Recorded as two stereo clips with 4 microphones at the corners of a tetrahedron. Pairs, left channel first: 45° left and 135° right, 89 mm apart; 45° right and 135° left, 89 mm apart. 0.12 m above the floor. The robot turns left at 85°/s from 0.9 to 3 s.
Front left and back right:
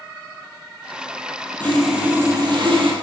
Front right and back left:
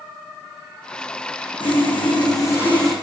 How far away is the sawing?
About 4 m.